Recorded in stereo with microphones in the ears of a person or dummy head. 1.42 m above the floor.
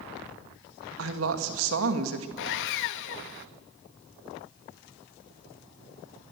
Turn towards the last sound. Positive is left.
turn(degrees=60)  # may be behind; listen again after turning